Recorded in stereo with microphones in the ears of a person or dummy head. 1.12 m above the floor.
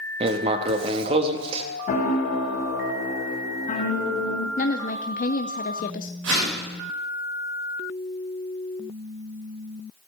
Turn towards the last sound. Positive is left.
turn(degrees=-75)  # may be behind; listen again after turning